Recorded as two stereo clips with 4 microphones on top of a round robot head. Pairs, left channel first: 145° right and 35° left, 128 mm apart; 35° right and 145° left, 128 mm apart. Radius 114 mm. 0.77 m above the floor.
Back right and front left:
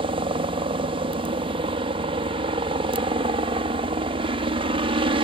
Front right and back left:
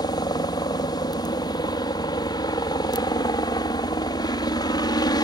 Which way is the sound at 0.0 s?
10° left.